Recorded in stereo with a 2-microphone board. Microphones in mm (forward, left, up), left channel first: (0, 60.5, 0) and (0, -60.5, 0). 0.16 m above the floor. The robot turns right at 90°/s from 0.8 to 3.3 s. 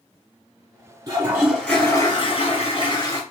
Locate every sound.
1.1 s a toilet flushing: 40° right, 1.8 m; by 3.2 s 150° left, 1.8 m